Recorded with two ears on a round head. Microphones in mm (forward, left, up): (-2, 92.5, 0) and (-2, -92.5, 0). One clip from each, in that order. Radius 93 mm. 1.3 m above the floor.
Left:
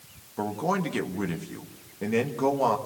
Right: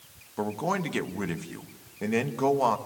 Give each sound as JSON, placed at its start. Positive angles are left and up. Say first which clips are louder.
{"t": 0.4, "sound": "a man speaking", "louder": "left 1 dB", "side_deg": -20, "distance_m": 1.3}